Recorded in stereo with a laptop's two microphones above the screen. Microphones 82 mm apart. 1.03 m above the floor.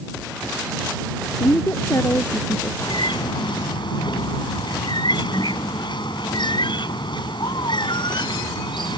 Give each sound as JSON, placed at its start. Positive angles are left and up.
{"t": 1.4, "sound": "a woman speaking", "side_deg": 40}
{"t": 2.8, "sound": "a bird", "side_deg": 70}